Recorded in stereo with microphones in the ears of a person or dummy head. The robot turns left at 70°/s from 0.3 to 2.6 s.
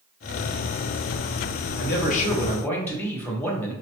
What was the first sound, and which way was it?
A man speaking, 70° left.